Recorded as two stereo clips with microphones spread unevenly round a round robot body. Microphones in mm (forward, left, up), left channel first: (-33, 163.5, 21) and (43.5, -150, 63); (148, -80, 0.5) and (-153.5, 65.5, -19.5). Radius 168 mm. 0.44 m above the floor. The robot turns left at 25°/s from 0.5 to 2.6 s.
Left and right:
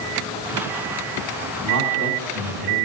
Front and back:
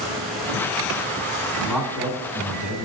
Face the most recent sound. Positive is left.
turn(degrees=-140)